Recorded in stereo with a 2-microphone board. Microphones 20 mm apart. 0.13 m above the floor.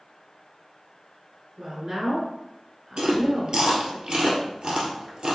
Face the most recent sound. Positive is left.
turn(degrees=-55)  # may be behind; listen again after turning